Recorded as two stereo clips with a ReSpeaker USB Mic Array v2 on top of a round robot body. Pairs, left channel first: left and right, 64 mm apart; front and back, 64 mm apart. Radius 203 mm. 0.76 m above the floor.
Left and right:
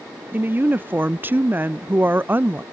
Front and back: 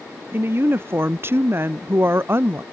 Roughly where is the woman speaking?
Behind right.